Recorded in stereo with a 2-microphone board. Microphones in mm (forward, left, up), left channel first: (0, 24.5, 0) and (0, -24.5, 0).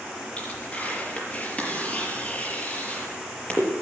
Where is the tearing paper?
30° left (ahead or behind), 5.5 m.